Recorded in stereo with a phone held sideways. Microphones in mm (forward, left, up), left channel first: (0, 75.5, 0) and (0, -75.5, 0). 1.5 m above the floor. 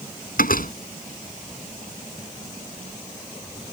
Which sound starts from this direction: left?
A door slam, at 0.4 s.